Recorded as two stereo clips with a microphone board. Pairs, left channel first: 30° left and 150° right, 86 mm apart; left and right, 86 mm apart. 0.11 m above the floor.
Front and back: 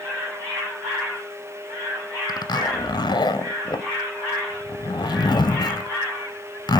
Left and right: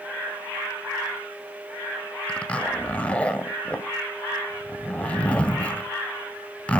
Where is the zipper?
20° left, 0.5 m.